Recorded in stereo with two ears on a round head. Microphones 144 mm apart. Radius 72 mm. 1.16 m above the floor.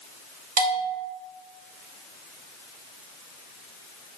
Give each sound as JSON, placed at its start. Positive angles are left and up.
{"t": 0.6, "sound": "a bell", "side_deg": -55, "distance_m": 1.5}